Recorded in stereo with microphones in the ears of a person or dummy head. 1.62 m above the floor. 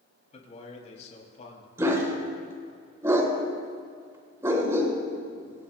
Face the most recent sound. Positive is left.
turn(degrees=-15)  # may be behind; listen again after turning